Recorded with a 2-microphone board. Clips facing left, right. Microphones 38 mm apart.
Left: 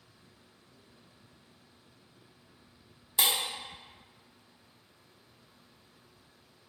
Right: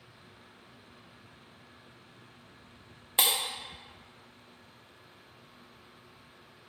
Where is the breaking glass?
45° right (ahead or behind), 0.8 m.